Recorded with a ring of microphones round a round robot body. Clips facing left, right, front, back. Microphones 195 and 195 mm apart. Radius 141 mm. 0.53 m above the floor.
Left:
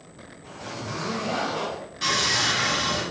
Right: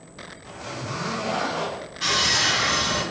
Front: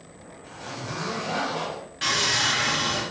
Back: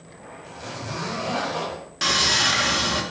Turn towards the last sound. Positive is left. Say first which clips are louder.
# right 1 dB, back 3 dB
turn(degrees=170)